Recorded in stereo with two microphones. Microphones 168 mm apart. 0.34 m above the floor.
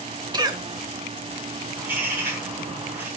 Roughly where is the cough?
Right.